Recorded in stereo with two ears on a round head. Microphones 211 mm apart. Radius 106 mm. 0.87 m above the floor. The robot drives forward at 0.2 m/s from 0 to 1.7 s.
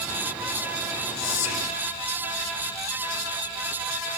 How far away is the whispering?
About 3.5 m.